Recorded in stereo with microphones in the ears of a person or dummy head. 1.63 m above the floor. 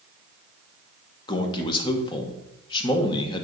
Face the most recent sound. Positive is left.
turn(degrees=25)  # may be behind; listen again after turning